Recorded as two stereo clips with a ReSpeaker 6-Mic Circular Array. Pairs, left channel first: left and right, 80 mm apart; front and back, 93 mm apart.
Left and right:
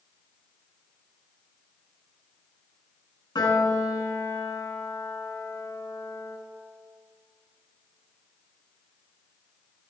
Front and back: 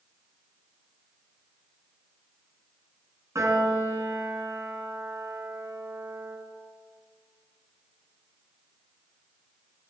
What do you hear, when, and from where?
3.4 s a piano: 120° left, 3.5 m